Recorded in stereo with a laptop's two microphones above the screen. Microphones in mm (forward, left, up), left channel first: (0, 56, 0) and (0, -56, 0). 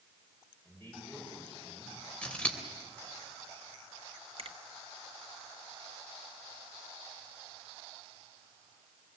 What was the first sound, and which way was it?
A man speaking, 15° left (ahead or behind).